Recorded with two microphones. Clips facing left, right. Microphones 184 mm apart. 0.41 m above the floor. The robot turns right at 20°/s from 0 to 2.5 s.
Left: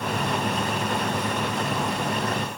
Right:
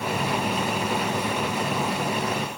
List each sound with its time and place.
Only background noise.